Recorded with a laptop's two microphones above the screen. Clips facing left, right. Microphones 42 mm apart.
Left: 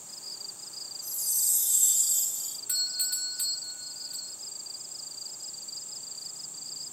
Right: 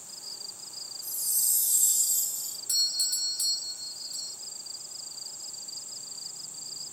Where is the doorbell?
30° left (ahead or behind), 0.7 m.